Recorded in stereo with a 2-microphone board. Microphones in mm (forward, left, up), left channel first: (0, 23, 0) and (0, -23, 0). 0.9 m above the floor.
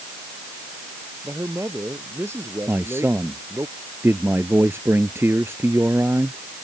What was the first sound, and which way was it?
A man speaking, 75° right (ahead or behind).